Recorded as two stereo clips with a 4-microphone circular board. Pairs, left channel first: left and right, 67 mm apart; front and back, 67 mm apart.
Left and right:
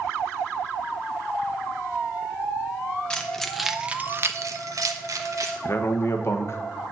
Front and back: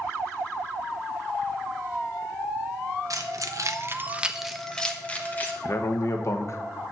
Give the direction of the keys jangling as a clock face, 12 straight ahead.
7 o'clock.